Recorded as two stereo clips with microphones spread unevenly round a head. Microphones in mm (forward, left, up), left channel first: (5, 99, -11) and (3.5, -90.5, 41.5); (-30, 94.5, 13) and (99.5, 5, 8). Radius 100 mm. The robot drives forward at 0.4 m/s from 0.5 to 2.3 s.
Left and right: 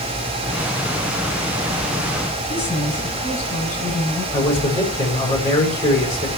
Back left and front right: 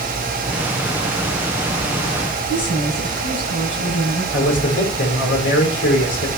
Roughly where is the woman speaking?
Behind.